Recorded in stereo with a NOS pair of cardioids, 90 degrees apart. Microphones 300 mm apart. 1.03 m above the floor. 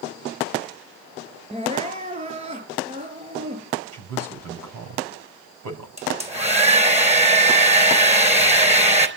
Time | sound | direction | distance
1.5 | crying | 20° right | 5 m
3.9 | a man speaking | 60° right | 5 m
6.0 | a hair dryer | 20° right | 4 m